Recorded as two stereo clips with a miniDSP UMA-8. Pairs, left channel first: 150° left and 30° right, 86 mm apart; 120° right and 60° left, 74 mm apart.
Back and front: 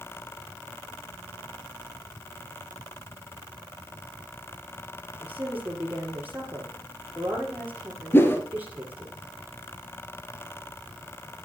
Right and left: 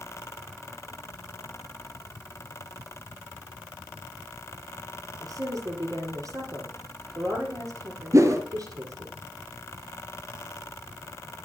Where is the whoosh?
90° left, 0.9 m.